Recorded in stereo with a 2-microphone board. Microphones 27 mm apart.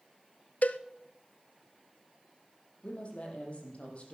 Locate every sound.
0.6 s a cowbell: 65° left (ahead or behind), 0.6 m
2.8 s a woman speaking: 50° left (ahead or behind), 5 m